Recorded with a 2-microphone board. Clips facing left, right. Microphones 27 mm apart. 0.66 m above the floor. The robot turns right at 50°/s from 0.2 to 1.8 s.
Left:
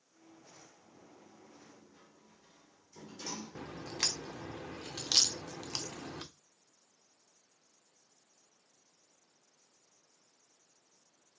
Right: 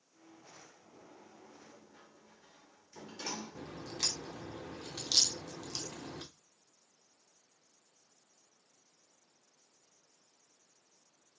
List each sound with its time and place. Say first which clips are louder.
0.9 s a sliding door: right 2 dB; 75° right (ahead or behind), 1.1 m; by 3.8 s 35° right (ahead or behind), 1.1 m
3.5 s a crack: left 2 dB; 50° left (ahead or behind), 0.6 m